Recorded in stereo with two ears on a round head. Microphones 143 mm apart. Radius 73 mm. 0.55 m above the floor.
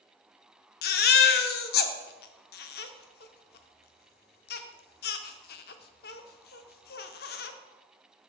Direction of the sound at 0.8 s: 60° left (ahead or behind).